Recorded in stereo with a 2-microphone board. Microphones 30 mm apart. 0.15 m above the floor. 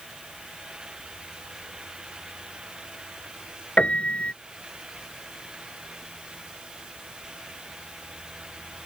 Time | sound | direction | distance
3.8 | a piano | 45° left (ahead or behind) | ?